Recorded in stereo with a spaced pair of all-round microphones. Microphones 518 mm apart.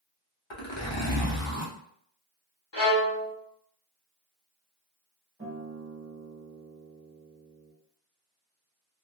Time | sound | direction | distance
0.5 | a zipper | 60° left (ahead or behind) | 0.7 m
2.7 | a violin | 55° left (ahead or behind) | 0.9 m
5.4 | a guitar | 25° right (ahead or behind) | 0.9 m